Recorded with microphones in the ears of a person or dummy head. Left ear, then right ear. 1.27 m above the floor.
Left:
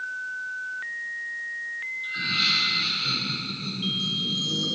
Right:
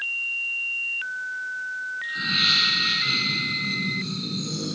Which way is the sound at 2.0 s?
Centre (ahead or behind).